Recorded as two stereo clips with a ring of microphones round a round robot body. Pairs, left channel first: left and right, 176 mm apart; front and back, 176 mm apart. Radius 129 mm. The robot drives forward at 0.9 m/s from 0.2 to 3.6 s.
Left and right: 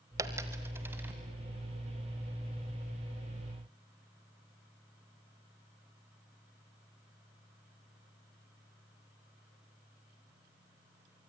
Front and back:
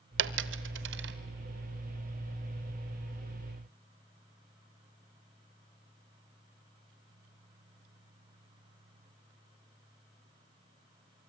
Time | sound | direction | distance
0.2 | a dropped coin | 165° right | 1.0 m